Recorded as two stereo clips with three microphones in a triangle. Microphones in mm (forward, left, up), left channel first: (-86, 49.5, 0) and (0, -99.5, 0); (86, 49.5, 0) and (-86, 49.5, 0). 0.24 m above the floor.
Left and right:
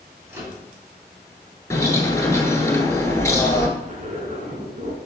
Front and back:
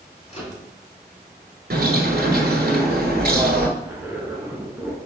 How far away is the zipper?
About 0.9 m.